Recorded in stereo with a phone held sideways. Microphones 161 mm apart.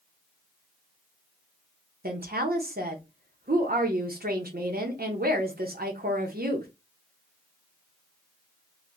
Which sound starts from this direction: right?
A woman speaking, at 2.0 s.